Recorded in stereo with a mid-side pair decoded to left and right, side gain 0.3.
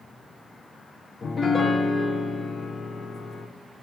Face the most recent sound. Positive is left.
turn(degrees=55)